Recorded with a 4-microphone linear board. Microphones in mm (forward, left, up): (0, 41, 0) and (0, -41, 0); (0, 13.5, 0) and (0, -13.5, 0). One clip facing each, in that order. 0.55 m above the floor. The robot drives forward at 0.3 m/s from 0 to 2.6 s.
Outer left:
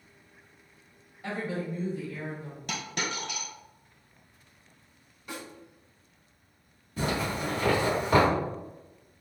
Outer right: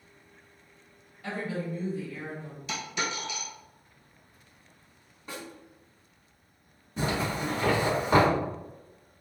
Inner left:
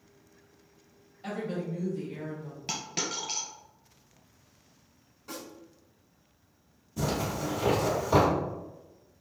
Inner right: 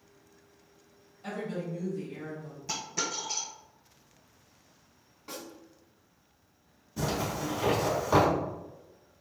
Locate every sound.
1.2 s a woman speaking: 20° left (ahead or behind), 1.4 m
2.7 s a dropped coin: 55° left (ahead or behind), 1.4 m
5.3 s a snare drum: 30° right (ahead or behind), 1.4 m
7.0 s a zipper: 20° right (ahead or behind), 1.7 m